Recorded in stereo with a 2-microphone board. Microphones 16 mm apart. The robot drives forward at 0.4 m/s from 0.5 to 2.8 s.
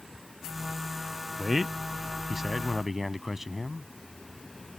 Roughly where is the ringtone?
No ringtone in this recording.